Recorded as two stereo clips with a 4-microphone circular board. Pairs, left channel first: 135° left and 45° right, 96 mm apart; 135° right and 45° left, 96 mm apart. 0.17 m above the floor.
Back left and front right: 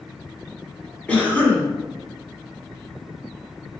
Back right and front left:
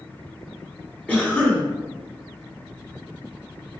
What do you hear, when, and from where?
1.1 s a cough: straight behind, 1.0 m